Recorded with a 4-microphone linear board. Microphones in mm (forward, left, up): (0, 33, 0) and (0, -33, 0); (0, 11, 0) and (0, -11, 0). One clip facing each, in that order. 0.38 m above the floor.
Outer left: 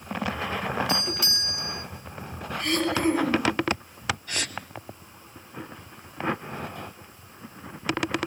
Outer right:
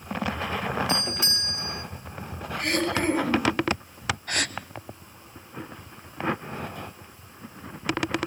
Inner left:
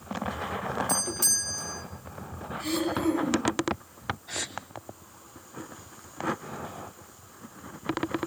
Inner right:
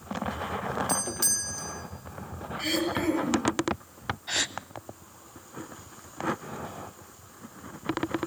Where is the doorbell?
25° right (ahead or behind), 3 m.